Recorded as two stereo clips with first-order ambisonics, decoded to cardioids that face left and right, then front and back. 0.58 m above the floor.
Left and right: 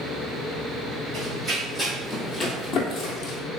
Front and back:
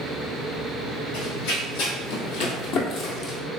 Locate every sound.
1.1 s running footsteps: 25° right, 1.5 m; by 3.4 s 60° left, 1.1 m